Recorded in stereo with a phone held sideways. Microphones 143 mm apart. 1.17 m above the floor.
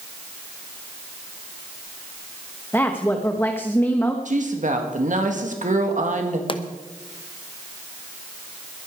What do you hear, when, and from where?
2.7 s a woman speaking: 15° left (ahead or behind), 1.1 m
4.2 s a woman speaking: 60° right (ahead or behind), 1.9 m
6.5 s a pop: 35° left (ahead or behind), 0.9 m